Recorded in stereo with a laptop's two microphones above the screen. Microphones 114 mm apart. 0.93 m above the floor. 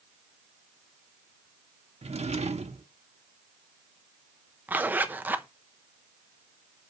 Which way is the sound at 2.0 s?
70° right (ahead or behind).